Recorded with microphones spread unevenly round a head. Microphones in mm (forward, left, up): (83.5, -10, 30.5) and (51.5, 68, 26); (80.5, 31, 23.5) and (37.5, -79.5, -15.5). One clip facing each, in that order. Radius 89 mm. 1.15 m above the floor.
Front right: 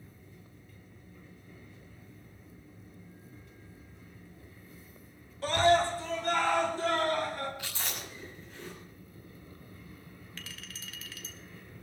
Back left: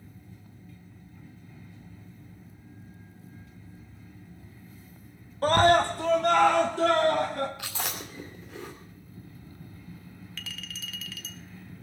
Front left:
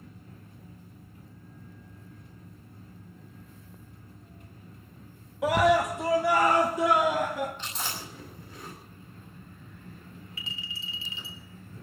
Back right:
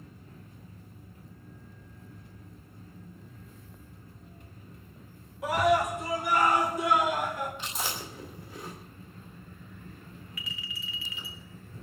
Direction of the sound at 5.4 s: 100° left.